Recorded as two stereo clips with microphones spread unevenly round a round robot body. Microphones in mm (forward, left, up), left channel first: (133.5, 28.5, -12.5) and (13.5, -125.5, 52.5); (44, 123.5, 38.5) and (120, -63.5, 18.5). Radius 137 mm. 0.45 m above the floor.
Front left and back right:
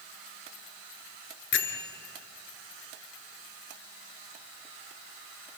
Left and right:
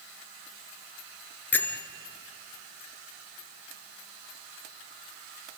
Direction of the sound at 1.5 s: 30° left.